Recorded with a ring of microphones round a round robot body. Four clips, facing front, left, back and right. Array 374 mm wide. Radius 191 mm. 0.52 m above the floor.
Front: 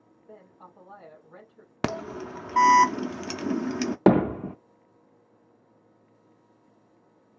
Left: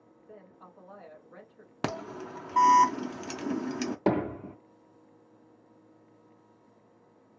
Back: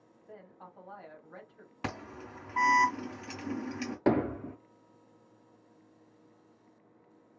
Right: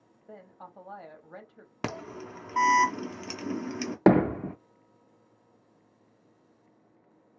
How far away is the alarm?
About 0.8 m.